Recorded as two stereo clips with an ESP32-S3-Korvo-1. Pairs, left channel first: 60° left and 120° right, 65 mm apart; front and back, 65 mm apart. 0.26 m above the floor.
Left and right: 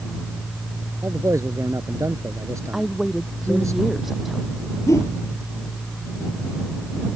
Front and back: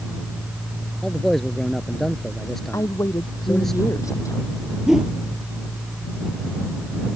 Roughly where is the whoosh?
Left.